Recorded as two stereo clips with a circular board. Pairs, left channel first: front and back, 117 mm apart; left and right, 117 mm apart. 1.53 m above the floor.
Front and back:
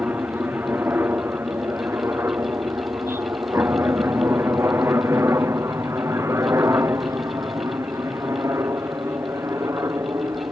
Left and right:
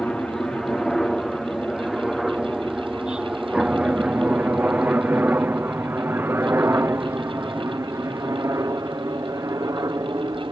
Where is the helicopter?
160° left; by 10.5 s 130° right.